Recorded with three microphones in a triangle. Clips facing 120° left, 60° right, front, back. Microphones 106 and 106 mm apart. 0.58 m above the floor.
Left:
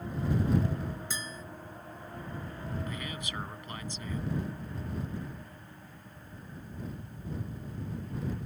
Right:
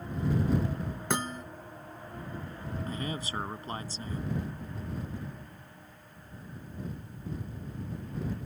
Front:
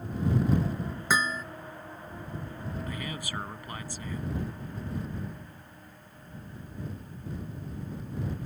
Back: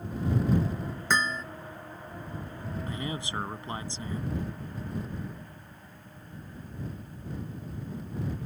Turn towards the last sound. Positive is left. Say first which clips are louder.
# right 3 dB, back 2 dB
turn(degrees=-115)